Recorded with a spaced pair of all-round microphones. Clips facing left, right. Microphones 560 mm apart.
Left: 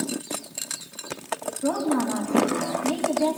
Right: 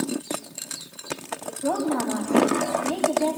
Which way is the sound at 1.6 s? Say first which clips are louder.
Left 1 dB; 40° left (ahead or behind).